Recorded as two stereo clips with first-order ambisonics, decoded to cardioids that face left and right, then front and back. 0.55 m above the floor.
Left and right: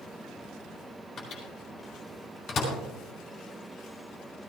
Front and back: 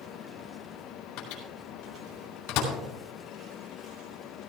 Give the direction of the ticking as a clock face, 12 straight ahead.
No ticking in this recording.